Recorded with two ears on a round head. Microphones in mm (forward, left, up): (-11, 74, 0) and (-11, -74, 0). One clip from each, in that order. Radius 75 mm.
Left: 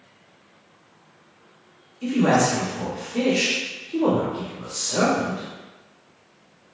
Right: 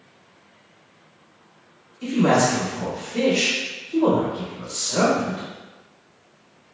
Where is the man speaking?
5° right (ahead or behind), 1.3 m.